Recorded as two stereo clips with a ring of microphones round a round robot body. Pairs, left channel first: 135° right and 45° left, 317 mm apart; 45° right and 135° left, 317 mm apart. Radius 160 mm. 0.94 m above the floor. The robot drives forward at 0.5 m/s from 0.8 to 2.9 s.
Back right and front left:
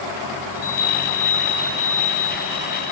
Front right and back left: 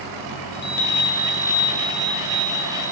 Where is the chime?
105° right, 1.0 m; by 2.9 s 145° right, 1.6 m.